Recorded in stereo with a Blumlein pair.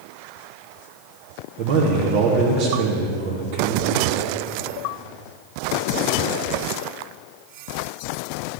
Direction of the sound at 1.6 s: 45° right.